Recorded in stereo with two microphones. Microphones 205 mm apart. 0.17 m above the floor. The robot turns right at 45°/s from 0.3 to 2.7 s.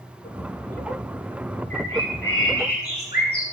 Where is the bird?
85° left, 8.5 m; by 3.4 s 130° left, 8.5 m.